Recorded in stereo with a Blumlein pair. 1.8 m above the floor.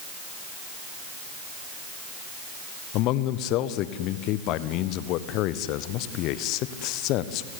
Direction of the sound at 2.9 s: 40° left.